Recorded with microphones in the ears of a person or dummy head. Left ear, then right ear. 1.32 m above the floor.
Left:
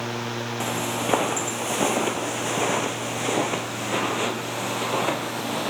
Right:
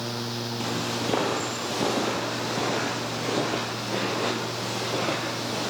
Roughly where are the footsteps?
Left.